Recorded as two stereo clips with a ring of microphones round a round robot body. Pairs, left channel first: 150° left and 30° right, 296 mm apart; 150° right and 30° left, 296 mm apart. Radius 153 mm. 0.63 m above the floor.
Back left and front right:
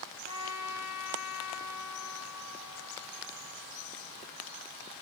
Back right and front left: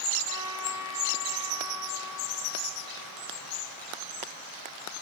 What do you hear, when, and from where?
0.2 s a trumpet: 175° left, 4 m